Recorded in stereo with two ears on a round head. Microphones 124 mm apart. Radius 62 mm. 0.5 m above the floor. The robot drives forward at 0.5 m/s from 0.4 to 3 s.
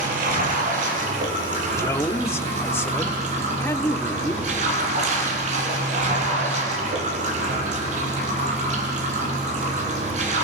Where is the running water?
65° right (ahead or behind), 7 m; by 10.4 s 55° right (ahead or behind), 8 m.